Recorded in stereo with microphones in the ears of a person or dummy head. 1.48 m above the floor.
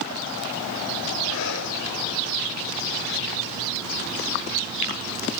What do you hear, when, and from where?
1.3 s breathing: 70° left (ahead or behind), 3 m